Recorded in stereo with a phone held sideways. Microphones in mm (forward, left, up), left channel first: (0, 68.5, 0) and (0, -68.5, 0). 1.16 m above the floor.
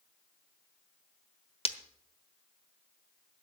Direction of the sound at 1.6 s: 45° left (ahead or behind).